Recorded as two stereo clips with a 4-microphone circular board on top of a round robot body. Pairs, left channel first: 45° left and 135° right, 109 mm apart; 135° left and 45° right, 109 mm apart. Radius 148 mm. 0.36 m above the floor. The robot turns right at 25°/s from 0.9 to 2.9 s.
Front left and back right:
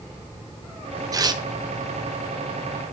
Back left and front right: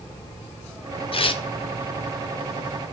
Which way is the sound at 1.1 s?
170° left.